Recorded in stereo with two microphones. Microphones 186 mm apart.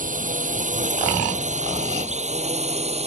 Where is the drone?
45° right (ahead or behind); by 3.1 s 35° right (ahead or behind).